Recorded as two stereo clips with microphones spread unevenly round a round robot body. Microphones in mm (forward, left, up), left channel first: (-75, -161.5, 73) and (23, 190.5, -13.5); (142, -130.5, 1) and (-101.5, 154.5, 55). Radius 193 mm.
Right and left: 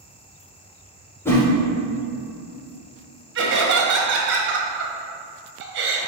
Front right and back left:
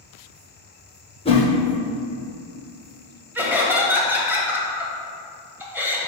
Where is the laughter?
40° left, 1.3 m.